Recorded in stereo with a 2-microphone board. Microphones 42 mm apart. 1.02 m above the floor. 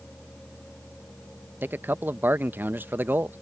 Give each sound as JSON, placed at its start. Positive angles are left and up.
{"t": 1.6, "sound": "a man speaking", "side_deg": -50}